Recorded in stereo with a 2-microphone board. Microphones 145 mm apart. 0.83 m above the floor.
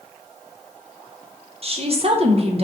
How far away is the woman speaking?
About 0.7 m.